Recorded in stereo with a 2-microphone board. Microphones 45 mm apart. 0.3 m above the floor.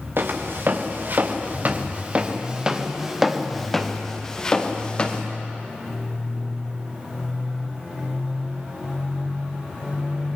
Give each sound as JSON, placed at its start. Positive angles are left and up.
{"t": 0.2, "sound": "footsteps", "side_deg": -60, "distance_m": 3.0}